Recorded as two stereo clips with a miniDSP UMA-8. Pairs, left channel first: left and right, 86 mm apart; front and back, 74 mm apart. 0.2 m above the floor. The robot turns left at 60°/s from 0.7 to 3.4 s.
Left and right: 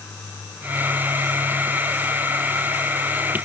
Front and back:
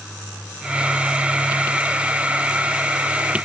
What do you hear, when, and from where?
Only background noise.